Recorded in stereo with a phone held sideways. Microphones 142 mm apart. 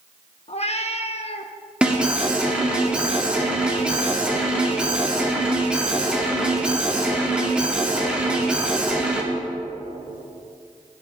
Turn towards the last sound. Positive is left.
turn(degrees=-5)  # may be behind; listen again after turning